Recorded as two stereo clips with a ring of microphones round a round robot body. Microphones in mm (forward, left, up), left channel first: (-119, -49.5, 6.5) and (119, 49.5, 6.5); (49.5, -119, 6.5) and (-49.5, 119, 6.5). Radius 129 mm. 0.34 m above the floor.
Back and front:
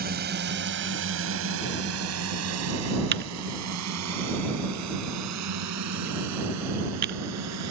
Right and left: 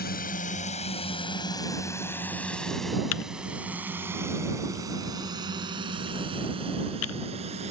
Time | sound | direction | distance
0.0 | a drone | 20° right | ?
3.1 | typing on a keyboard | 30° right | ?